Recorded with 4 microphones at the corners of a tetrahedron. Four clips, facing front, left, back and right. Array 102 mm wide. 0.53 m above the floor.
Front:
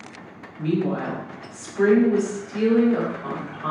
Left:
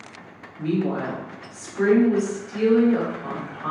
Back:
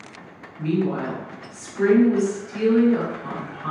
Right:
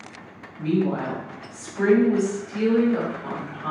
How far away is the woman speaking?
About 1.4 m.